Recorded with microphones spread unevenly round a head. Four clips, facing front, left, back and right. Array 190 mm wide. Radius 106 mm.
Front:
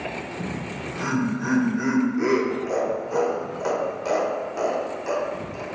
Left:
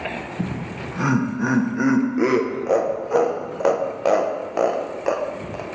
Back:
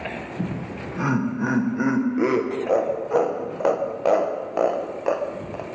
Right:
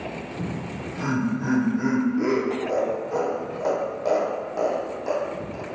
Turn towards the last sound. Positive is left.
turn(degrees=95)